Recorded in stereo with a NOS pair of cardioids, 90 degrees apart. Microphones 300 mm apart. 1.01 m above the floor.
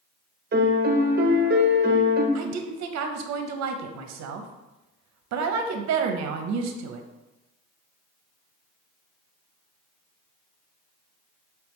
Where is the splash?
No splash in this recording.